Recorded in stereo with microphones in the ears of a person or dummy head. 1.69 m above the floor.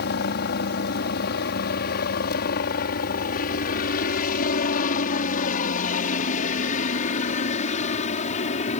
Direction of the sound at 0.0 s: 55° left (ahead or behind).